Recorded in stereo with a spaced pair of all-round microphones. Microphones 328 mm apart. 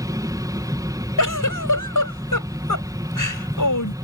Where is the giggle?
75° left (ahead or behind).